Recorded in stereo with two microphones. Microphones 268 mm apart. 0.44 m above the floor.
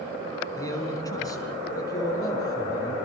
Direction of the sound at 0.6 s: 10° left (ahead or behind).